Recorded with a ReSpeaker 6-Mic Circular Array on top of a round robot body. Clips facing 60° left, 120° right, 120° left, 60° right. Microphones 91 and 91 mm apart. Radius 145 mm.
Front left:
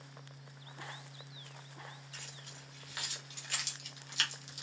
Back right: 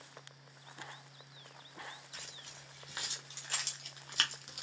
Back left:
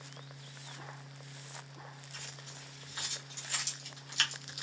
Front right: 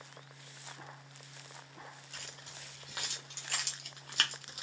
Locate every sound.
2.1 s keys jangling: 45° right, 1.6 m; by 4.6 s 110° right, 0.8 m